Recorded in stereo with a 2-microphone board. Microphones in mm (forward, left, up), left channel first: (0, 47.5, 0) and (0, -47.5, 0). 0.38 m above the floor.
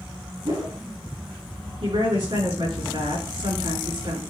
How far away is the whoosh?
About 4 m.